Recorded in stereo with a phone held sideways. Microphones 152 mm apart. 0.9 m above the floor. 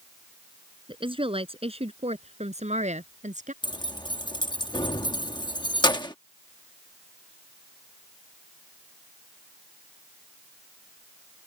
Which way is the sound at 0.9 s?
35° right (ahead or behind).